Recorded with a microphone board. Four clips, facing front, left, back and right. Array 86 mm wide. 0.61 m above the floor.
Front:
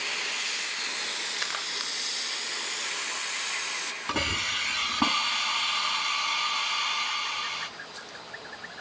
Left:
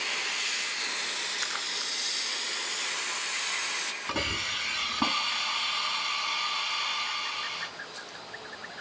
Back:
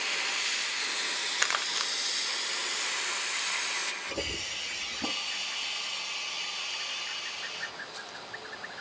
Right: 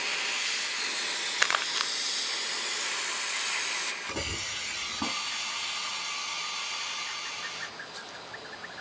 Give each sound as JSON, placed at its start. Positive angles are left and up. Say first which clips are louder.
{"t": 1.4, "sound": "crumpling", "louder": "right 7 dB, back 7 dB", "azimuth_deg": -105, "distance_m": 0.9}
{"t": 4.1, "sound": "a hiss", "louder": "left 4 dB, front 6 dB", "azimuth_deg": 20, "distance_m": 4.5}